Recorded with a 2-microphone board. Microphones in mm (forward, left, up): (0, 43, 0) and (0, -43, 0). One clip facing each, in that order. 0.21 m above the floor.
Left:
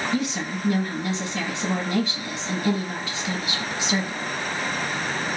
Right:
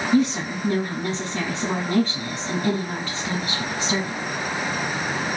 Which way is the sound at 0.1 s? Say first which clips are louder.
Right 6 dB; 35° right (ahead or behind).